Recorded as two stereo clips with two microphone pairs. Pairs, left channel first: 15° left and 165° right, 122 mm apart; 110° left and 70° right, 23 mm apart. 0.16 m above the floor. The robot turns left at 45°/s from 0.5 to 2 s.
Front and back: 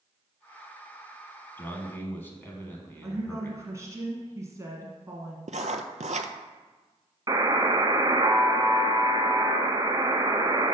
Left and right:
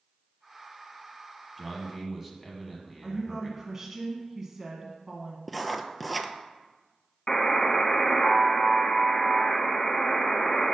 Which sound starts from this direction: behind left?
A buzzer, at 7.3 s.